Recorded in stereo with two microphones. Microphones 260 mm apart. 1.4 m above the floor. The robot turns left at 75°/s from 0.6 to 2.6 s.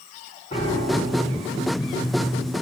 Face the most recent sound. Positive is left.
turn(degrees=-120)